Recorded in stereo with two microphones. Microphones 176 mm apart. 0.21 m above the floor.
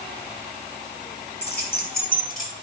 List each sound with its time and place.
1.4 s keys jangling: 65° left (ahead or behind), 3.5 m; by 2.5 s 45° left (ahead or behind), 3.5 m